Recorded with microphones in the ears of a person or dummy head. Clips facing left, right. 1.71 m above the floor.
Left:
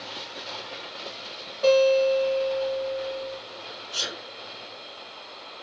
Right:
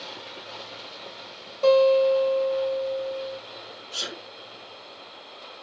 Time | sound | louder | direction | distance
1.6 | a guitar | right 1 dB | 30° right (ahead or behind) | 2.5 m
3.9 | a sneeze | even | 40° right (ahead or behind) | 2.5 m